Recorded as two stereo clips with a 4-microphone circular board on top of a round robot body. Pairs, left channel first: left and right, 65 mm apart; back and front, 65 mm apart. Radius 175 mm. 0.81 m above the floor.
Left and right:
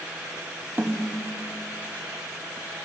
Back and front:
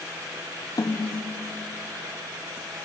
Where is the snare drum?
155° right, 1.3 m.